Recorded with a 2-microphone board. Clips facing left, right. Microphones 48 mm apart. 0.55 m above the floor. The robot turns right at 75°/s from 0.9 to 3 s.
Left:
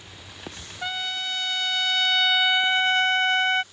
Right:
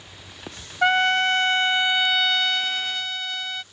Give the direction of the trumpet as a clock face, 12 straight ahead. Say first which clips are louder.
Right 12 dB; 4 o'clock.